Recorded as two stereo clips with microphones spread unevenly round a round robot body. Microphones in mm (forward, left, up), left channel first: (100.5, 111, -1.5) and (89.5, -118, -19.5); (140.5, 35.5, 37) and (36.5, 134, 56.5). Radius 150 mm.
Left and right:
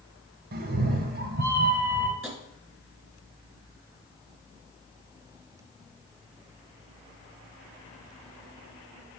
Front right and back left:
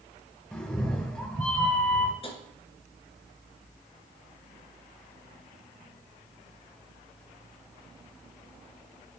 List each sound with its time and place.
0.5 s a cat meowing: 115° right, 0.6 m
2.2 s tapping: 15° right, 2.5 m